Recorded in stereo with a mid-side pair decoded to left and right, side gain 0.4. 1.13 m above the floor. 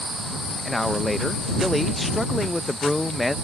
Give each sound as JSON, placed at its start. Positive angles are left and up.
{"t": 0.7, "sound": "a man speaking", "azimuth_deg": 10}